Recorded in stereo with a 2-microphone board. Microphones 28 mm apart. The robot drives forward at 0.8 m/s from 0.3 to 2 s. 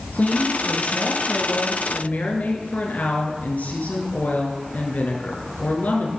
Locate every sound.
0.1 s a woman speaking: 75° left (ahead or behind), 4.5 m; by 6.1 s 70° left (ahead or behind), 4.5 m